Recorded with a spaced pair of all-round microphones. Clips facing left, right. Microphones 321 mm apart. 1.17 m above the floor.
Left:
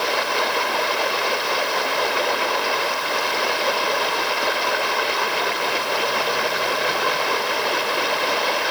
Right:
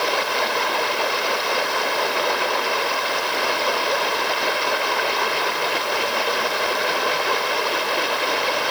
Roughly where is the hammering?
I don't hear hammering.